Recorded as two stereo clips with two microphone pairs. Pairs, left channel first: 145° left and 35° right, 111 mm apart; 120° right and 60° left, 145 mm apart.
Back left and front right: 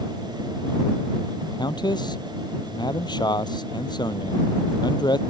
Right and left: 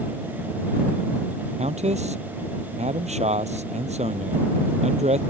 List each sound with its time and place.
1.6 s a man speaking: 95° left